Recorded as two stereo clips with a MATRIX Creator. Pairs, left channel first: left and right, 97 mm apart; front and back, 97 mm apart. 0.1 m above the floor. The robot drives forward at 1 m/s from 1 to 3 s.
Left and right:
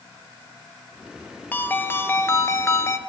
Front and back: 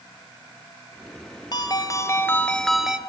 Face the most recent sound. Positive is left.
turn(degrees=115)